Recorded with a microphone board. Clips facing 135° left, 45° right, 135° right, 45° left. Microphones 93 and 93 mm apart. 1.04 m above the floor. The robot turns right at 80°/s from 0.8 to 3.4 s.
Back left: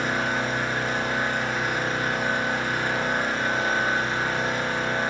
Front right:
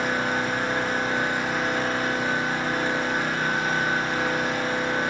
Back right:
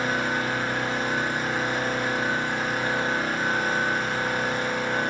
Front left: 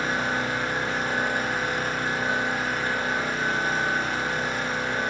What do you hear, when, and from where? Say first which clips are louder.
0.0 s an engine running: front right 1 dB, back right 1 dB; 15° right, 0.8 m; by 5.1 s 165° right, 0.8 m